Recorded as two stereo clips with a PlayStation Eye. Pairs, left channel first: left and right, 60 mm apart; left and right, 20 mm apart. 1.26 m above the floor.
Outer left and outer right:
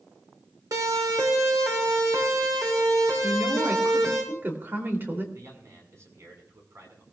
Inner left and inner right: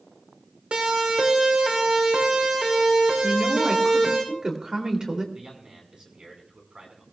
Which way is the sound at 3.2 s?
40° right (ahead or behind).